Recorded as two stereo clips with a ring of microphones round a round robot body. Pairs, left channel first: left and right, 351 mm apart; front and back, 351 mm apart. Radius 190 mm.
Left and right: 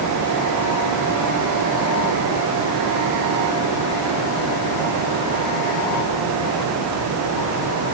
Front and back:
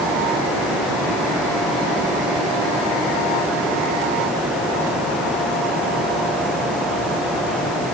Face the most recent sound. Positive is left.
No sound to turn to.